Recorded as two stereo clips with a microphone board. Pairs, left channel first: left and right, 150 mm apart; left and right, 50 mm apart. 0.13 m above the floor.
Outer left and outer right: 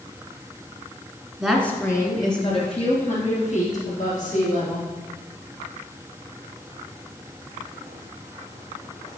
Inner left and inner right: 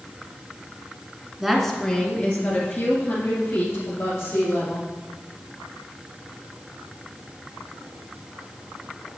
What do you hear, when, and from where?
1.4 s a woman speaking: 5° right (ahead or behind), 1.4 m; by 4.8 s 65° left (ahead or behind), 4.5 m